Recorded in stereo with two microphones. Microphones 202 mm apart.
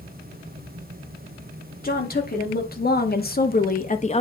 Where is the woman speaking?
45° left (ahead or behind), 1.7 m; by 4.2 s 30° left (ahead or behind), 0.7 m.